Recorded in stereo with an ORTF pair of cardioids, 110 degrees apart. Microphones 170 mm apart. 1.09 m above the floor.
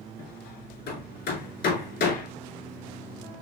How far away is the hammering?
About 2.5 m.